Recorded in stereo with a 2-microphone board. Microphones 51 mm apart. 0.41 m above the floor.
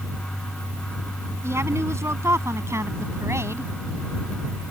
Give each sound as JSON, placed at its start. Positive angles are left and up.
{"t": 1.4, "sound": "a woman speaking", "side_deg": -70}